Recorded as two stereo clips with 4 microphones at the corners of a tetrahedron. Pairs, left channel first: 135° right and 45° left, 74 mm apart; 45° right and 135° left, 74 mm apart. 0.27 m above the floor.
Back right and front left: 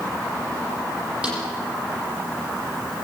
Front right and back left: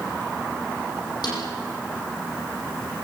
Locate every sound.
1.2 s a snare drum: 30° right, 9 m